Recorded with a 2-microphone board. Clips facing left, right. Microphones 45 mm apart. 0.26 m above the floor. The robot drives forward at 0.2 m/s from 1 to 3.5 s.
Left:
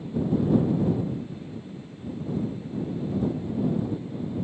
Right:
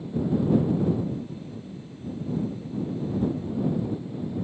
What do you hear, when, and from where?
Only background noise.